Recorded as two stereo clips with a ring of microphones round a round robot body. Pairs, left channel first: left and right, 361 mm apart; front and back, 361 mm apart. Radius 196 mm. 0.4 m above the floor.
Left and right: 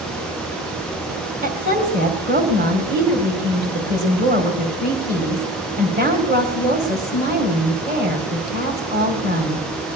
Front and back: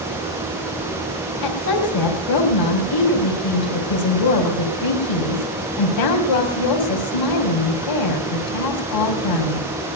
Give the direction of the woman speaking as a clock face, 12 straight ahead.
1 o'clock.